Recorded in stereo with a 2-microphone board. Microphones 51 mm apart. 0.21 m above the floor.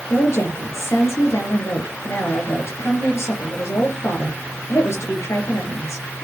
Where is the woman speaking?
65° left (ahead or behind), 4.5 m.